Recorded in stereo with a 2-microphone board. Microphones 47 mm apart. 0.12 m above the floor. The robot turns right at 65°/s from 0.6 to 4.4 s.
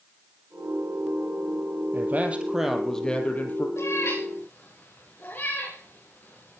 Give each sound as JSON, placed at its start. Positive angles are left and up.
{"t": 1.9, "sound": "a man speaking", "azimuth_deg": -55, "distance_m": 3.0}
{"t": 3.8, "sound": "a cat meowing", "side_deg": 85, "distance_m": 7.5}